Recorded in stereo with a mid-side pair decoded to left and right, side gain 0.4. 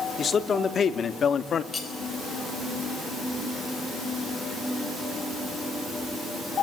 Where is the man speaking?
45° left, 3 m; by 1.6 s 55° left, 1.8 m.